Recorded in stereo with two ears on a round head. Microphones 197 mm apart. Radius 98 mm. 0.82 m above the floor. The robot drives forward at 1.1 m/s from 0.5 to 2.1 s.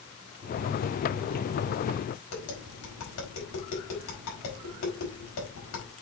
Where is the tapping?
70° left (ahead or behind), 4.5 m.